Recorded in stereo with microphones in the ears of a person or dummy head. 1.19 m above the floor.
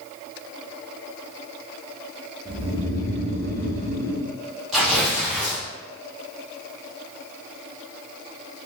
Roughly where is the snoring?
Centre.